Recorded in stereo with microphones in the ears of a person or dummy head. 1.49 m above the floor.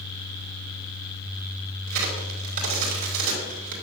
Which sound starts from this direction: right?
A crack, at 1.9 s.